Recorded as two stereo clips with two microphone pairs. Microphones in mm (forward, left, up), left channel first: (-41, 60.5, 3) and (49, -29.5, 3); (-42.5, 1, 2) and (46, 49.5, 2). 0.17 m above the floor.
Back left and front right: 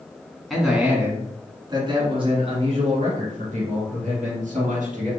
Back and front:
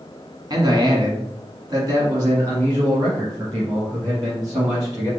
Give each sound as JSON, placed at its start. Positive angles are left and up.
{"t": 0.5, "sound": "a man speaking", "azimuth_deg": 45, "distance_m": 1.3}